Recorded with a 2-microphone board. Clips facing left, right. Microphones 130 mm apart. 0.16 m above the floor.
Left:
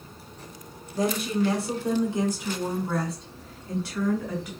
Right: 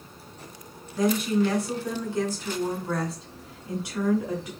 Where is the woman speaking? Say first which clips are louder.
Right 2 dB; 40° left (ahead or behind), 2.0 m; by 4.5 s 30° right (ahead or behind), 1.7 m.